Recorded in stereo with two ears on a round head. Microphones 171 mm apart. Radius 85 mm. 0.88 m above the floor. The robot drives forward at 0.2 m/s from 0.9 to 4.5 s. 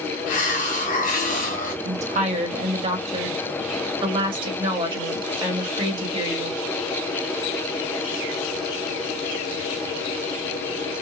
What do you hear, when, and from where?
0.3 s a hiss: 45° left (ahead or behind), 1.1 m
1.9 s a woman speaking: 40° right (ahead or behind), 1.0 m; by 6.6 s 25° right (ahead or behind), 1.4 m